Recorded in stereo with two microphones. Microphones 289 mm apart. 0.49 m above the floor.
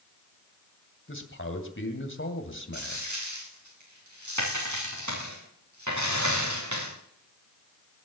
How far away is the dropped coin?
About 7.5 m.